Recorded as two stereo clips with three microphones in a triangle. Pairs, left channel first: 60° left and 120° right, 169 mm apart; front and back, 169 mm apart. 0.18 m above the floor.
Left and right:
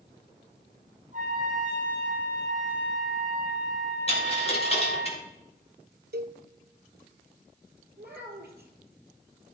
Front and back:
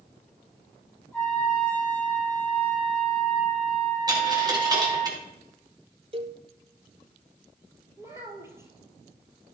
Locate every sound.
1.1 s a trumpet: 85° right, 6.5 m
4.1 s a dropped coin: 110° left, 3.5 m
6.1 s a cowbell: 130° right, 0.7 m
8.0 s a child speaking: 105° right, 2.5 m